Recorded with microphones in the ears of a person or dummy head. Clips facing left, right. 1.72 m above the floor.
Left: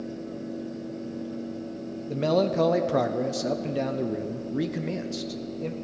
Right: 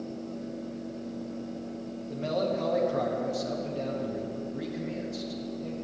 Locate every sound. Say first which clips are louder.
2.1 s a man speaking: left 6 dB; 80° left, 0.6 m